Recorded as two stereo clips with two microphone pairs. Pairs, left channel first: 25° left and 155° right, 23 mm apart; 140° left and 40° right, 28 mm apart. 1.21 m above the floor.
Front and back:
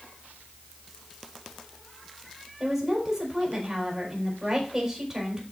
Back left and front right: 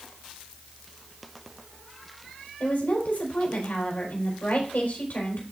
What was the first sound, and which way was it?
A woman speaking, 145° left.